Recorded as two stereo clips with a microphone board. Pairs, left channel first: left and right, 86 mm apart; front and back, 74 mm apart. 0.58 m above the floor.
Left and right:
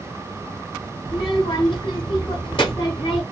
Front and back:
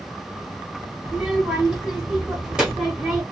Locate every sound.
1.1 s a child speaking: 105° left, 1.2 m